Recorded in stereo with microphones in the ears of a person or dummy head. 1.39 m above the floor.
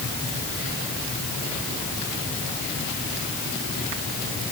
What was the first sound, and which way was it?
Only background noise.